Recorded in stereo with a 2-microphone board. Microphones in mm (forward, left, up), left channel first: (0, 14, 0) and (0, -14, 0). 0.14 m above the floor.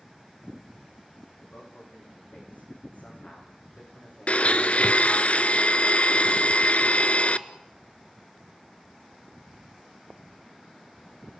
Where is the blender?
60° left (ahead or behind), 0.7 m.